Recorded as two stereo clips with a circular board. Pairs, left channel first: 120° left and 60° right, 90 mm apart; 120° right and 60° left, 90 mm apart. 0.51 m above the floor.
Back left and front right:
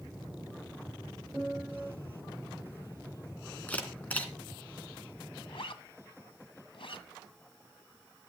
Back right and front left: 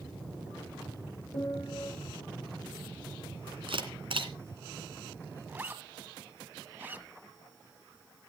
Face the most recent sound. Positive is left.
turn(degrees=130)